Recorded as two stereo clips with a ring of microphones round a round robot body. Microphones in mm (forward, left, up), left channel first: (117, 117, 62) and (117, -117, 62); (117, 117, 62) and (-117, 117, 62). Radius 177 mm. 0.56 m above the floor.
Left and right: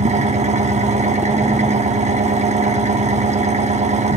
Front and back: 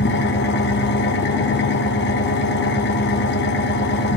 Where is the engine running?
35° right, 1.2 m.